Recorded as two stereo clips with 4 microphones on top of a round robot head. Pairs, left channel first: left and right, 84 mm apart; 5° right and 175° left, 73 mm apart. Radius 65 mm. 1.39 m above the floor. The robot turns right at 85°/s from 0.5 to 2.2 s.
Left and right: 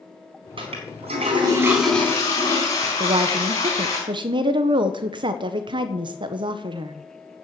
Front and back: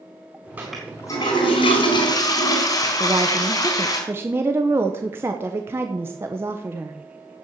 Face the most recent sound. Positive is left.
turn(degrees=-120)